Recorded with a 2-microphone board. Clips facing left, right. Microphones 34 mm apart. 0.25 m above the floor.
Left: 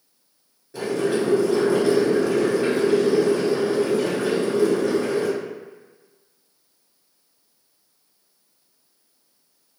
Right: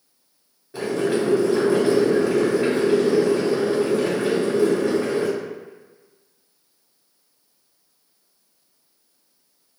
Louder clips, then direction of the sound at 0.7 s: Even; 25° right (ahead or behind).